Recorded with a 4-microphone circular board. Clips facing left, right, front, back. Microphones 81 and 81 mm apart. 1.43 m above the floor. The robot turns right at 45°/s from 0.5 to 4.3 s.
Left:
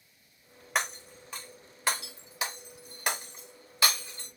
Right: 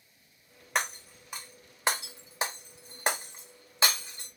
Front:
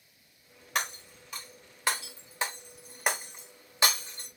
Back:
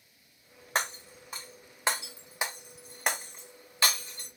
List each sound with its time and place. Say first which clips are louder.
0.8 s breaking glass: even, back 2 dB; 170° left, 0.9 m; by 4.3 s 30° right, 0.9 m